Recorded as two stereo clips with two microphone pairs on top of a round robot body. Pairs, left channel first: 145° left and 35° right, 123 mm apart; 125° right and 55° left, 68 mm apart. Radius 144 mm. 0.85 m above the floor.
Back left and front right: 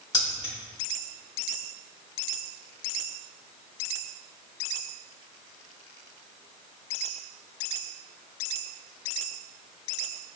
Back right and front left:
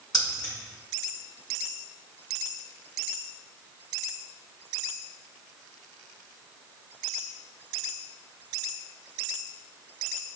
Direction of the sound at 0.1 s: 155° right.